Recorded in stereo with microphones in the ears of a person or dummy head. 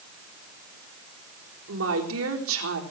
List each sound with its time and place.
1.7 s a woman speaking: 80° right, 3.5 m